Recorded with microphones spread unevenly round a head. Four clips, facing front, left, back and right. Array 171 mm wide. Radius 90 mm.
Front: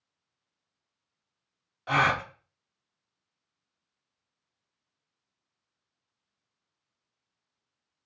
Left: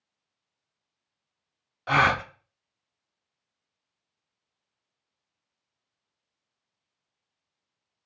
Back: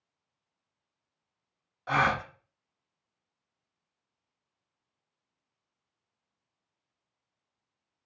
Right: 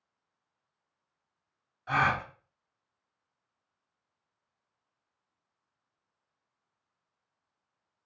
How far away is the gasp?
About 0.5 m.